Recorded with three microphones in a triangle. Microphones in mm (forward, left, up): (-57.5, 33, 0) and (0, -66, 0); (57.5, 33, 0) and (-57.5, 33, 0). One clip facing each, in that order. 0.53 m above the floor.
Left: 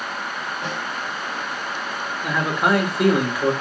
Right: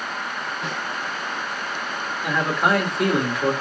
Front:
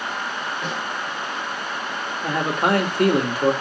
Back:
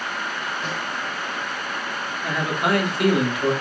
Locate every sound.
0.6 s a snare drum: 65° left, 2.5 m
2.2 s a man speaking: 35° left, 1.2 m